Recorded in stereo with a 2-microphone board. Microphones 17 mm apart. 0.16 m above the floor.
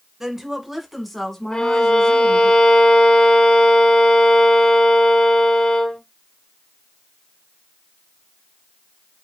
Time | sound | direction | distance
0.2 | a woman speaking | 25° right (ahead or behind) | 1.3 m
1.5 | a violin | 55° left (ahead or behind) | 2 m